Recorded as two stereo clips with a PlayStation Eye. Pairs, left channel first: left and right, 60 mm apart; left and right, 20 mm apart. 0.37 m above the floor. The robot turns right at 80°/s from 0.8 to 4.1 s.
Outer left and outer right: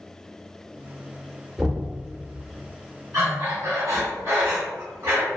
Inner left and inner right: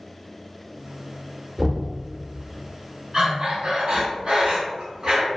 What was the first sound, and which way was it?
Knocking, 10° right (ahead or behind).